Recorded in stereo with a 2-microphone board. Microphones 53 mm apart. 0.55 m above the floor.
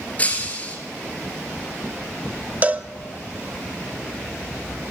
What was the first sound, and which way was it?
Breaking glass, 25° left (ahead or behind).